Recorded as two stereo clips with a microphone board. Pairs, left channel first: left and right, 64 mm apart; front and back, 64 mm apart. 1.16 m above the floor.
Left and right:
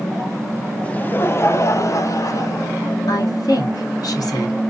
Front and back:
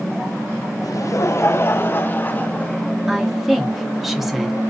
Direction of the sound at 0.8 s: 20° left.